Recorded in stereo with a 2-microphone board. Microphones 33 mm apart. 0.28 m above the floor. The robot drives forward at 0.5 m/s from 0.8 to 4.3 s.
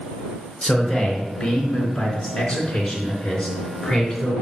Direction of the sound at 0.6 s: 35° left (ahead or behind).